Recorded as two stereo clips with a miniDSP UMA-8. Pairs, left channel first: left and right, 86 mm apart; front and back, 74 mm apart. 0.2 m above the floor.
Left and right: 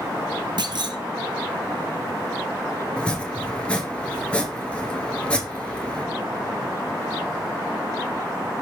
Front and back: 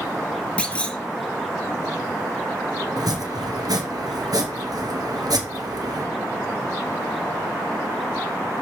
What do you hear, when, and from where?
0.6 s a clunk: 75° right, 1.2 m
3.0 s chopping: 165° left, 1.7 m